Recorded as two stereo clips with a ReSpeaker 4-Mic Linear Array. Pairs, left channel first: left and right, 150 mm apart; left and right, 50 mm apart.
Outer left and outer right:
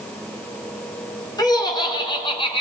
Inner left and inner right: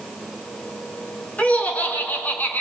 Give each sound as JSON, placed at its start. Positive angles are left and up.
{"t": 1.4, "sound": "laughter", "side_deg": 25, "distance_m": 4.0}